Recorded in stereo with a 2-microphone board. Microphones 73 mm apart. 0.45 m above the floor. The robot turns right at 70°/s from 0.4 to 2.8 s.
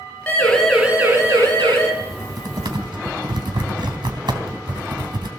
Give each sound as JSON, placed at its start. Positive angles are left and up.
{"t": 0.3, "sound": "a siren", "side_deg": 20, "distance_m": 8.0}
{"t": 2.0, "sound": "typing on a keyboard", "side_deg": -30, "distance_m": 3.5}